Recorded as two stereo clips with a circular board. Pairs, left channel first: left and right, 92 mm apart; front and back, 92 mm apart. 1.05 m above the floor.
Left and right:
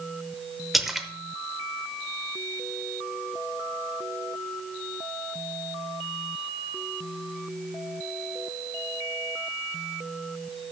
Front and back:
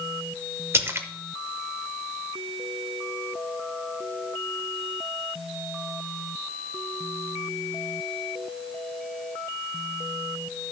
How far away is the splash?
About 0.8 m.